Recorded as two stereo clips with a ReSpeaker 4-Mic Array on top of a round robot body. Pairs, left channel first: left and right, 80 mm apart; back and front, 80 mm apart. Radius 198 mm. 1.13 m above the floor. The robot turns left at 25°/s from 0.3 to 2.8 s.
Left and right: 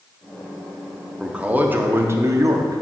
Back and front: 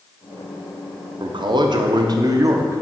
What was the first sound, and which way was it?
A man speaking, 10° right.